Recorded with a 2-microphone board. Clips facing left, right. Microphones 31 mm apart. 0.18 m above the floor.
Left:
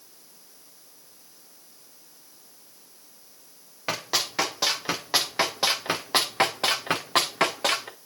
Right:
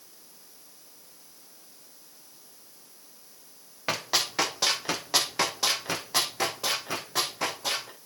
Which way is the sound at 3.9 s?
Centre (ahead or behind).